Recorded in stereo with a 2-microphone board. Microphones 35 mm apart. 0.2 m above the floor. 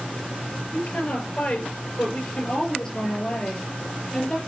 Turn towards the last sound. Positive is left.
turn(degrees=10)  # may be behind; listen again after turning